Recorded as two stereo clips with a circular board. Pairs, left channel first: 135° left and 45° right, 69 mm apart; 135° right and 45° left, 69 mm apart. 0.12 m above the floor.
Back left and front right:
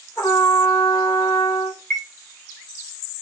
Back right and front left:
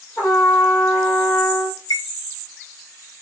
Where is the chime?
165° right, 1.3 m.